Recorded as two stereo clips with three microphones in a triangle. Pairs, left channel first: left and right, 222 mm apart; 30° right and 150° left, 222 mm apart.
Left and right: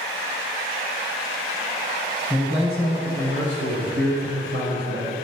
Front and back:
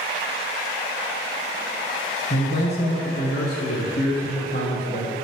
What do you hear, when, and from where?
2.3 s a man speaking: 5° right, 1.7 m; by 5.1 s 85° right, 2.5 m